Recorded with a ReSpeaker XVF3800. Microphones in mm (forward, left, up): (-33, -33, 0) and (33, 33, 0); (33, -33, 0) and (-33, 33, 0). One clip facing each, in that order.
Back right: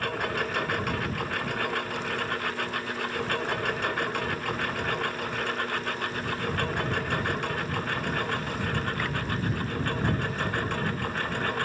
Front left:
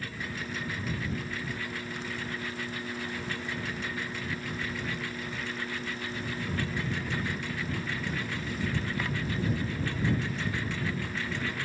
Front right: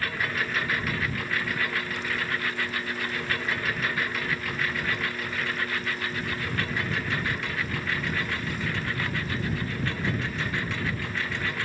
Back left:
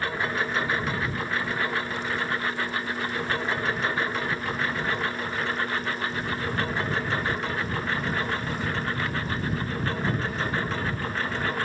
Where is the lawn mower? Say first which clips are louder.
Back right 9 dB, back left 3 dB; 160° right; by 11.7 s 170° right.